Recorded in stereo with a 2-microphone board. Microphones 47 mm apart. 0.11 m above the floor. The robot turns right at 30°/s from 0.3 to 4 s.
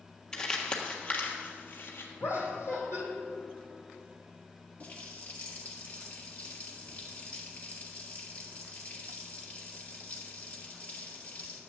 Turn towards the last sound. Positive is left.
turn(degrees=30)  # may be behind; listen again after turning